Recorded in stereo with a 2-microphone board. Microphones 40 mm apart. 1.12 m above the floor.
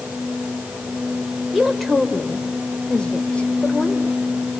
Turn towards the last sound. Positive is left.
turn(degrees=40)  # may be behind; listen again after turning